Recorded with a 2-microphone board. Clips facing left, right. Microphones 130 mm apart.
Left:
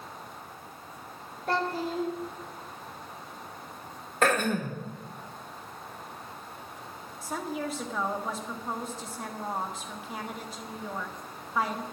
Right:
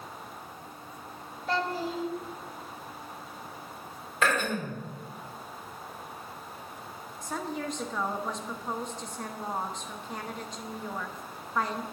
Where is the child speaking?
60° left (ahead or behind), 2.5 m.